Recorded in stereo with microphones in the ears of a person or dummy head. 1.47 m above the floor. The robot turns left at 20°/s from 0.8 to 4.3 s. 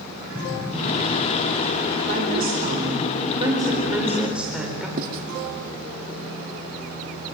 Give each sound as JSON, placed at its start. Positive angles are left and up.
{"t": 0.3, "sound": "an explosion", "side_deg": -15, "distance_m": 6.0}
{"t": 2.1, "sound": "a woman speaking", "azimuth_deg": -125, "distance_m": 4.5}
{"t": 5.0, "sound": "writing", "side_deg": -50, "distance_m": 2.0}